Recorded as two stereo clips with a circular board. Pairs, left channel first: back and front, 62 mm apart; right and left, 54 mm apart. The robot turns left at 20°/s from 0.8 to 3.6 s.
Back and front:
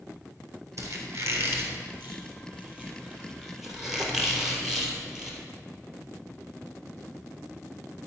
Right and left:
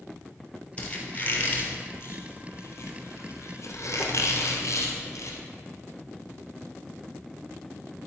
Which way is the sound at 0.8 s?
30° right.